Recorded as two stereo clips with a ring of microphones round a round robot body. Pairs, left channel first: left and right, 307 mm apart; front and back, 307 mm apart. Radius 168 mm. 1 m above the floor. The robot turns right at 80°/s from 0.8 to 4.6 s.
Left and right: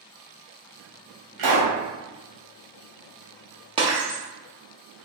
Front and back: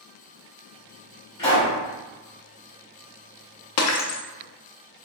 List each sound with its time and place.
1.4 s a pop: 80° right, 1.6 m; by 1.7 s 50° right, 1.6 m
3.8 s breaking glass: 20° right, 0.5 m; by 4.2 s 15° left, 0.5 m